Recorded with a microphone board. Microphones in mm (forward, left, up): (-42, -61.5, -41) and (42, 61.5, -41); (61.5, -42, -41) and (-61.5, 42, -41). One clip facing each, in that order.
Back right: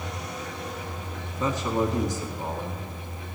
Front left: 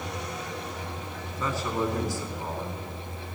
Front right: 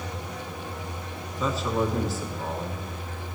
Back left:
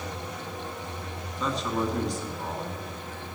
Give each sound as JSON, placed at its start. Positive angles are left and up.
{"t": 1.4, "sound": "a man speaking", "azimuth_deg": -115, "distance_m": 1.5}